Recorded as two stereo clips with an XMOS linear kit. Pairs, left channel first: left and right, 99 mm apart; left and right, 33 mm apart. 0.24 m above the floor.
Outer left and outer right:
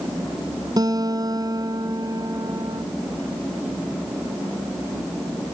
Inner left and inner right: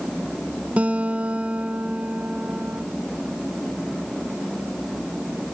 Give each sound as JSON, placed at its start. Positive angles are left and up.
{"t": 0.8, "sound": "a guitar", "side_deg": -45}